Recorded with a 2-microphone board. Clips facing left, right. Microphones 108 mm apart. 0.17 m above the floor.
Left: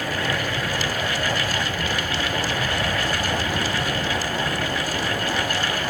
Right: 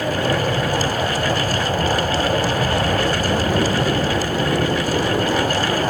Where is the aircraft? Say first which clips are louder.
Right 6 dB; 35° right (ahead or behind); by 5.9 s 45° right (ahead or behind).